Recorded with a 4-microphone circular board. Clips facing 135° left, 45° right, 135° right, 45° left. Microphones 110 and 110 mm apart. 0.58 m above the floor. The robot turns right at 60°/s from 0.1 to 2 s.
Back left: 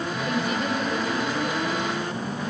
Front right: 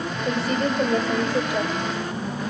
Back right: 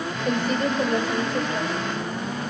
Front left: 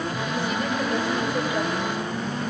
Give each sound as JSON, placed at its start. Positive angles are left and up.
{"t": 0.2, "sound": "a woman speaking", "azimuth_deg": -110, "distance_m": 3.0}